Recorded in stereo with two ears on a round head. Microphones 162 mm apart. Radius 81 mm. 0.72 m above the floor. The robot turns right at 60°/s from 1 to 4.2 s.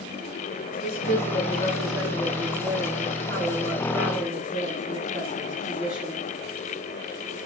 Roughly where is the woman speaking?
Behind left.